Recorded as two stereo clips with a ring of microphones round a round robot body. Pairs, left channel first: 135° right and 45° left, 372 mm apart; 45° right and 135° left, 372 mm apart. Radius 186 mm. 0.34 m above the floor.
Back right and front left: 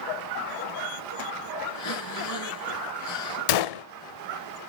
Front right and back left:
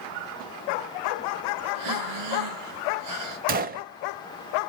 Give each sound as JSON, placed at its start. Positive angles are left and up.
{"t": 1.7, "sound": "breathing", "azimuth_deg": 175, "distance_m": 2.0}
{"t": 3.5, "sound": "a gunshot", "azimuth_deg": -160, "distance_m": 0.5}